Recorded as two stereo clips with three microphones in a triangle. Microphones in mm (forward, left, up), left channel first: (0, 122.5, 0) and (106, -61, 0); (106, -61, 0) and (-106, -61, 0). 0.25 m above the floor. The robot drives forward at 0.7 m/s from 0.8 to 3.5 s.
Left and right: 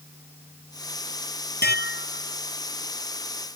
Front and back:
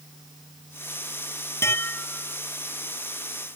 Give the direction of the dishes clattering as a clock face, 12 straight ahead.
9 o'clock.